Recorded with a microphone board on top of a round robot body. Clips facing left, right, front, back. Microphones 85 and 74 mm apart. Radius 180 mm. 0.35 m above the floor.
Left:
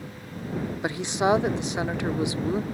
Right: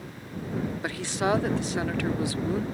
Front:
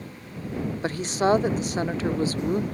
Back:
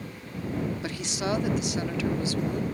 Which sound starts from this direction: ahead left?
A woman speaking, at 0.8 s.